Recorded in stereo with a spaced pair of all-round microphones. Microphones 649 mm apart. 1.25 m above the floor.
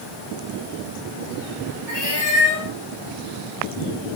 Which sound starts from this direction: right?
A cat meowing, at 1.9 s.